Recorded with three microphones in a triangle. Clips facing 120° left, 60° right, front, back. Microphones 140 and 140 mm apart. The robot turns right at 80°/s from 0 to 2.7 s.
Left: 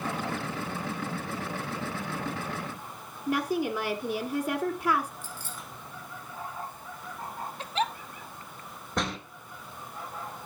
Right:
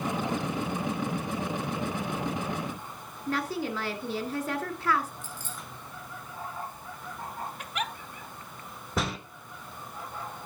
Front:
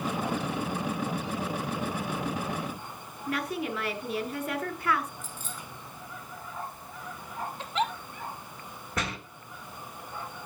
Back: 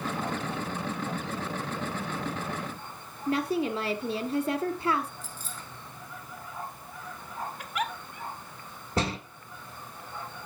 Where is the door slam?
145° right, 0.9 m.